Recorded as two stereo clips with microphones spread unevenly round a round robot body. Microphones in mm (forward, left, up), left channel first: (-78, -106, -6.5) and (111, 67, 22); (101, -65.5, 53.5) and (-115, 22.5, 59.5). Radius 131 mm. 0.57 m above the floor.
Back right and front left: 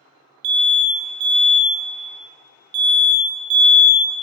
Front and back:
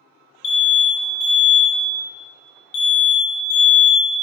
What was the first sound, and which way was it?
An alarm, 10° left.